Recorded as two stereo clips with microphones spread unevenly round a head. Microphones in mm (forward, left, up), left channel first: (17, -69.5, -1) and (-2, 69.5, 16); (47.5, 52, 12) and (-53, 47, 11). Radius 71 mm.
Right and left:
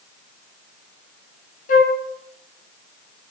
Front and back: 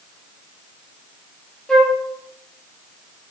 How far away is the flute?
About 1.4 m.